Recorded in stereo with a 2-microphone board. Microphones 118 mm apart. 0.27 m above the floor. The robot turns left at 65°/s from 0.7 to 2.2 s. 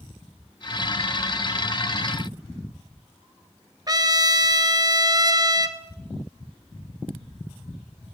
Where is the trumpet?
35° right (ahead or behind), 1.6 m.